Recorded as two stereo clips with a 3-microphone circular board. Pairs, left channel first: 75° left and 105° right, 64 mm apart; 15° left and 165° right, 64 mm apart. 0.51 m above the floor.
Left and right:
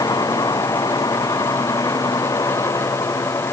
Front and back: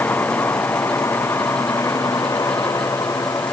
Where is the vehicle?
70° left; by 3.5 s 45° left.